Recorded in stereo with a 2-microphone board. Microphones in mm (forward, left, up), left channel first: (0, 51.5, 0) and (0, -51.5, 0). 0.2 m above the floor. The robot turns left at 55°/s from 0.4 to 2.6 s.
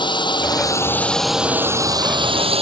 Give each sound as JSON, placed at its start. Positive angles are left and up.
{"t": 0.0, "sound": "a drone", "side_deg": 50}